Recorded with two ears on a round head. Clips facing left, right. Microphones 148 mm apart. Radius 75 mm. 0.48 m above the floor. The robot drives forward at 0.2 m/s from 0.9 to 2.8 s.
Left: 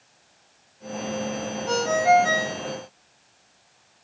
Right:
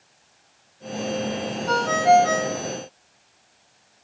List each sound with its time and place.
1.7 s a ringtone: 10° left (ahead or behind), 0.6 m